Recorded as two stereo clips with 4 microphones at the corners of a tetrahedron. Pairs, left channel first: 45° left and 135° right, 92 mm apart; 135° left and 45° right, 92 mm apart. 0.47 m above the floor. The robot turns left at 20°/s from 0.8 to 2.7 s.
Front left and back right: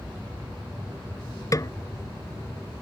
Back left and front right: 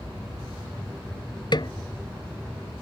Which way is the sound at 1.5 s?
95° left.